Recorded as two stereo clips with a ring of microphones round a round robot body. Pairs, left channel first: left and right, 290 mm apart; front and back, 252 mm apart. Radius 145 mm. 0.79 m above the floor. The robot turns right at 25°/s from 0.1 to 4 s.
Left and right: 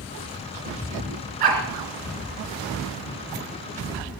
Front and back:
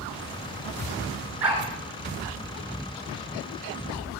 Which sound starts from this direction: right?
A dog barking, at 1.4 s.